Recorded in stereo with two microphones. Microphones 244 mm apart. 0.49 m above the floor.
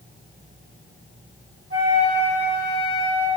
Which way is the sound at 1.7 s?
50° right (ahead or behind).